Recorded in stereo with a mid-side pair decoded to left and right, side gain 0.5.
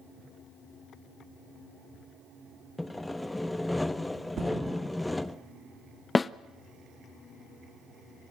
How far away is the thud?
About 6.5 m.